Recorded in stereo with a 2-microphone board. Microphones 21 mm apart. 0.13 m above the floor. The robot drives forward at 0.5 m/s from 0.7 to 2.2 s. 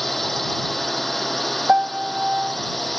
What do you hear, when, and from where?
0.0 s a drone: 10° left (ahead or behind); by 3.0 s 5° left (ahead or behind)
1.7 s a piano: 55° right (ahead or behind); by 2.6 s 75° right (ahead or behind)